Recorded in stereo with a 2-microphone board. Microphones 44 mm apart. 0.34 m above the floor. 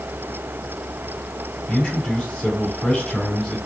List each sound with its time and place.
1.7 s a man speaking: 5° left (ahead or behind), 2.5 m